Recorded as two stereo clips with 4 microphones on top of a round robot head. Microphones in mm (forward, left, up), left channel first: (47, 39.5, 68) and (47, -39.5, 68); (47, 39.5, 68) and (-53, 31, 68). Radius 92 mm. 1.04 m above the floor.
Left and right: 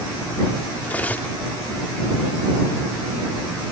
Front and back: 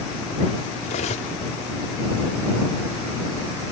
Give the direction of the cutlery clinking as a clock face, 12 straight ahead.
11 o'clock.